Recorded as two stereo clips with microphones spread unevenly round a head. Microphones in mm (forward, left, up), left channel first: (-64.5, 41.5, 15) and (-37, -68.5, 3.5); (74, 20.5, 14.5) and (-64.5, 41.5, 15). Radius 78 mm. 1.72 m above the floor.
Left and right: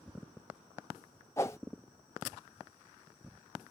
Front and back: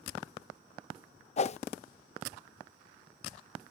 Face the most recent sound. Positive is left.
turn(degrees=30)